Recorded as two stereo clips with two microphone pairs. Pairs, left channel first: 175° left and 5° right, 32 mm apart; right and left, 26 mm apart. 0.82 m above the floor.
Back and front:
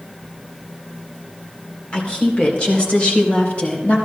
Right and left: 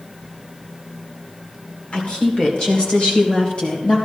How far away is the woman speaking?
About 2.5 m.